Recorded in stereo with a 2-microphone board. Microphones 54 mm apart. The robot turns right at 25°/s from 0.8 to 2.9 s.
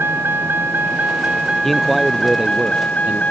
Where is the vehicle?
45° right (ahead or behind); by 3.3 s 30° left (ahead or behind).